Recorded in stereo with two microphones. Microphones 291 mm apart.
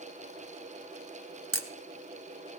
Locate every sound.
1.5 s a camera shutter: 50° right (ahead or behind), 0.9 m